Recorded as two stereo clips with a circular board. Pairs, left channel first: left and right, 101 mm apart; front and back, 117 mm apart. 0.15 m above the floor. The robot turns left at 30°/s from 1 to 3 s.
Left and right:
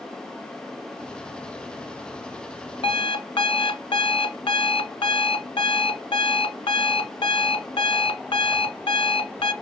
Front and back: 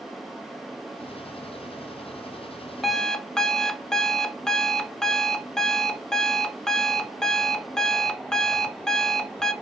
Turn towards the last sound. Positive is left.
turn(degrees=85)